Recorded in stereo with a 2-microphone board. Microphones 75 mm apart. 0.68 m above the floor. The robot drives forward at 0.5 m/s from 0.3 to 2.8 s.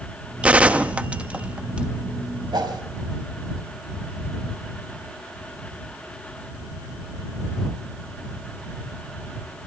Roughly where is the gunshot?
Centre.